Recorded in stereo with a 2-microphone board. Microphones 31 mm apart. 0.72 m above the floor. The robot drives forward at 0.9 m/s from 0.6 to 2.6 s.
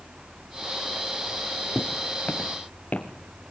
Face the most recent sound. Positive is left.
turn(degrees=50)  # may be behind; listen again after turning